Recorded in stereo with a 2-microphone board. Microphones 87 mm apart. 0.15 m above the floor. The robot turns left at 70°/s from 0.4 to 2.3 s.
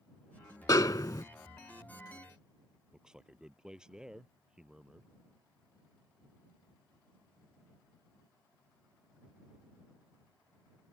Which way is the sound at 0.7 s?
105° left.